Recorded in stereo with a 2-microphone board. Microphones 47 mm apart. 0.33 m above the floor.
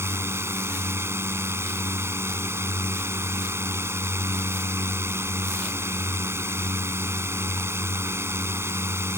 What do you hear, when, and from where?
0.0 s a drone: 65° right (ahead or behind)